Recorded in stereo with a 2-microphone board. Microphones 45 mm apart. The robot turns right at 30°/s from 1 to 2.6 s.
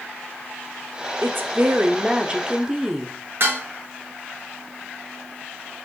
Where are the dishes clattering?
60° right (ahead or behind), 1.8 m.